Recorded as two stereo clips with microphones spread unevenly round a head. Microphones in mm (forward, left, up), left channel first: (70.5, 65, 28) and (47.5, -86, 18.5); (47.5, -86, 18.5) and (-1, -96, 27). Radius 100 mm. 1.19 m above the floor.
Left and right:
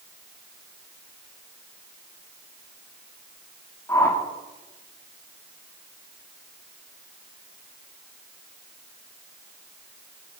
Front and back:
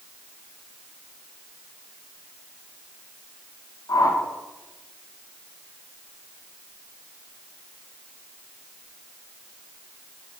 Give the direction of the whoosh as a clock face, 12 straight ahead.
12 o'clock.